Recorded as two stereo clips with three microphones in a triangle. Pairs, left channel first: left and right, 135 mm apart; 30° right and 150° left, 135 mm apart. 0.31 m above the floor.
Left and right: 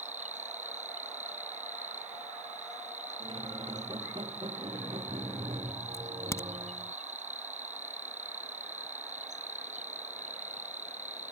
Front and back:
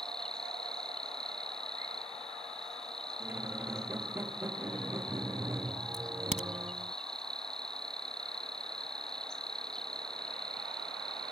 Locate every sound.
0.0 s an insect: 115° right
3.2 s a squeak: 135° right
5.9 s a crack: 155° left